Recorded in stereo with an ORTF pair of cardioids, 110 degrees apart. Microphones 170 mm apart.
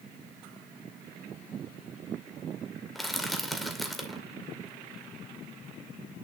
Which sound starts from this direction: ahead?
Crushing, at 3.0 s.